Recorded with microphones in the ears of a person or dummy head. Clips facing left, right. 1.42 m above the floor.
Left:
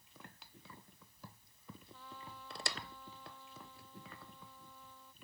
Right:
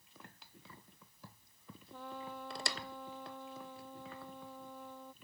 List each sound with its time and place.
1.9 s a trumpet: 45° right (ahead or behind)